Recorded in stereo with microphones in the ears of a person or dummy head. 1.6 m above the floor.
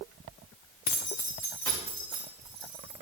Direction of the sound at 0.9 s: 30° left (ahead or behind).